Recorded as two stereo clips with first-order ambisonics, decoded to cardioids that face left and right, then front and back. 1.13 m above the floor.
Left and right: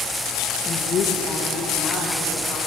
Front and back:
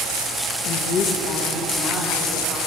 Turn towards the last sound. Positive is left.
turn(degrees=45)